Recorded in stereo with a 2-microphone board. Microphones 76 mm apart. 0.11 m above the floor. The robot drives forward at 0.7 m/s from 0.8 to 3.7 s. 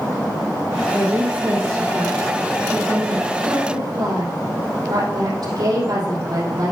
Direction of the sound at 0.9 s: 50° right (ahead or behind).